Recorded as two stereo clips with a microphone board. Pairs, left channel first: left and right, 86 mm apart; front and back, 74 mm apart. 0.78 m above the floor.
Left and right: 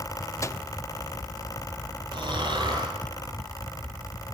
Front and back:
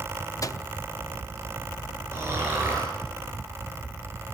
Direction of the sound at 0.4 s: 40° left.